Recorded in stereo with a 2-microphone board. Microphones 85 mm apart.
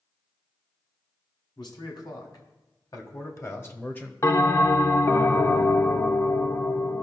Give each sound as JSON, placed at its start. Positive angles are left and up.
{"t": 1.6, "sound": "a man speaking", "side_deg": 60, "distance_m": 2.0}
{"t": 4.2, "sound": "a bell", "side_deg": 35, "distance_m": 0.6}